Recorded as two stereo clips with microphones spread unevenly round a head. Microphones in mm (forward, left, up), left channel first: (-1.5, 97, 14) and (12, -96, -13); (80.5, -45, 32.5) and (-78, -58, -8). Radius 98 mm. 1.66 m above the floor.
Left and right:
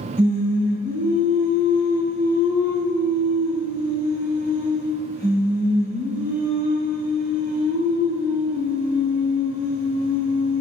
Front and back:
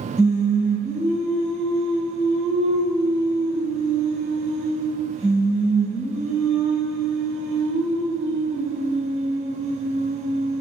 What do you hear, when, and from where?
0.2 s singing: 175° right, 1.6 m